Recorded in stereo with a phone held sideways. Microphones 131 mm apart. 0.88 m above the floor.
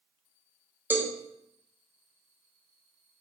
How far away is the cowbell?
About 0.6 m.